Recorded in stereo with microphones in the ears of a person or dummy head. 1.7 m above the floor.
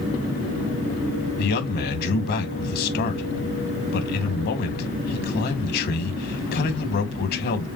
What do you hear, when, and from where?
1.4 s a man speaking: 55° left (ahead or behind), 2 m